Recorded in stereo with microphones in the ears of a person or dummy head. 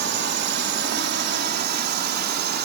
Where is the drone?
55° right (ahead or behind); by 2.7 s 45° right (ahead or behind).